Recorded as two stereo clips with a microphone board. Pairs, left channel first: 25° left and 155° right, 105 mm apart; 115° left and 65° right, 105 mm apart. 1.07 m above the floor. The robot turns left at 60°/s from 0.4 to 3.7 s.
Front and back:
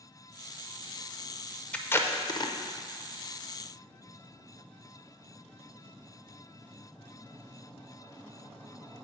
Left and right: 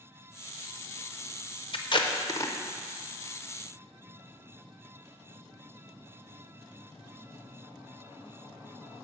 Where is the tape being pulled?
100° left, 0.5 m; by 2.5 s 50° left, 0.5 m.